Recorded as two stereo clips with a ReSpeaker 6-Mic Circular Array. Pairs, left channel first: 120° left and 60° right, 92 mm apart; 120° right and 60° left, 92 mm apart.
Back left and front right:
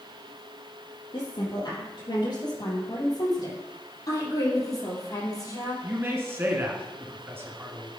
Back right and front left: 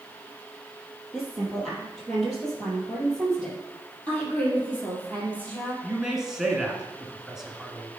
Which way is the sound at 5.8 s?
20° right.